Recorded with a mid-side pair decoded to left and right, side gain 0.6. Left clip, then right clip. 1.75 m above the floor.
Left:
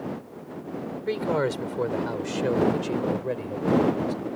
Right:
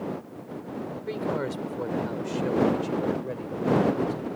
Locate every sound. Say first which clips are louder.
1.1 s a man speaking: left 5 dB; 35° left; by 4.1 s 30° left